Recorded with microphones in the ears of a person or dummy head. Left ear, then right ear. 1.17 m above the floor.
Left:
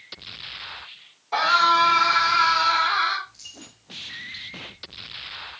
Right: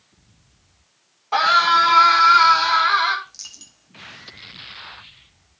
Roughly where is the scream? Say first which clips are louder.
Right 3 dB; right.